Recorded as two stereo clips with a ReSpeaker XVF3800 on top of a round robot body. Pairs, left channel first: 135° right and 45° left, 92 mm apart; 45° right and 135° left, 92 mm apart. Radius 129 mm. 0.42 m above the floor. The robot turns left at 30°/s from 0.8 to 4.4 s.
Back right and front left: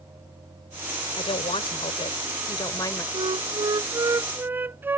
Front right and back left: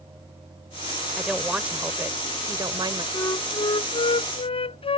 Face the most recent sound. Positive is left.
turn(degrees=-25)